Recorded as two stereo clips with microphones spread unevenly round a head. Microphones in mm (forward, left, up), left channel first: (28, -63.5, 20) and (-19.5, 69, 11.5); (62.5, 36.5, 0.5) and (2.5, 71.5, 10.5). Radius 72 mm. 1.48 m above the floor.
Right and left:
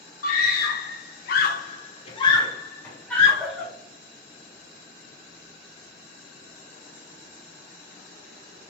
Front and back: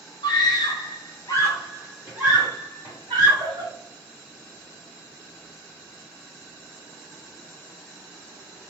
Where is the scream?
45° right, 1.0 m; by 3.7 s 160° right, 1.4 m.